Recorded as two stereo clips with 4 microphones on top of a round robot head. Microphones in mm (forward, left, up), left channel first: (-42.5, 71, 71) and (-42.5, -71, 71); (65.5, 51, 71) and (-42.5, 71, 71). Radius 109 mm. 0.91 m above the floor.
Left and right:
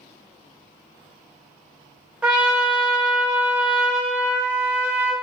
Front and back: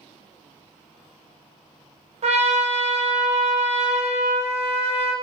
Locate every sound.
2.2 s a trumpet: 170° right, 1.1 m